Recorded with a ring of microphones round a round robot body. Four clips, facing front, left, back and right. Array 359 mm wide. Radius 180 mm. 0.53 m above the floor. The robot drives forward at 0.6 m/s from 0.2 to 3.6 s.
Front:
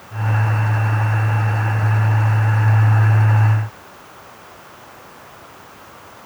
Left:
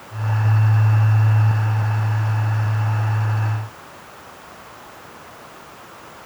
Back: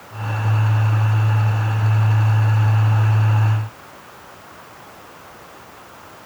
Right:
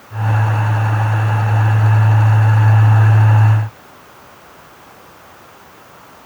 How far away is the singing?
I don't hear singing.